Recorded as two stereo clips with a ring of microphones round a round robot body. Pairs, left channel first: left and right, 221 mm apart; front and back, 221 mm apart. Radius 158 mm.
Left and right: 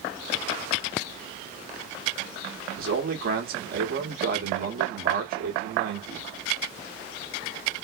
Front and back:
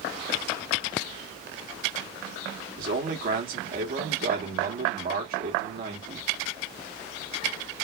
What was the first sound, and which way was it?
A man speaking, 135° right.